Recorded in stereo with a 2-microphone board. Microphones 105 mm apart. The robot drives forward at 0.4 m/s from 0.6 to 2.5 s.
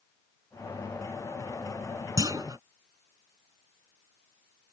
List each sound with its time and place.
2.2 s a clunk: 35° right (ahead or behind)